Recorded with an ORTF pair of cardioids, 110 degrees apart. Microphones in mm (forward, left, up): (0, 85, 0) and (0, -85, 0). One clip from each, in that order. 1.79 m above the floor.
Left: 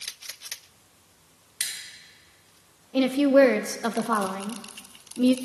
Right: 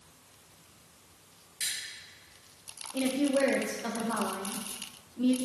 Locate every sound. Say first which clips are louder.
1.6 s scissors: left 3 dB; 60° left, 1.8 m
2.9 s a woman speaking: left 10 dB; 45° left, 0.6 m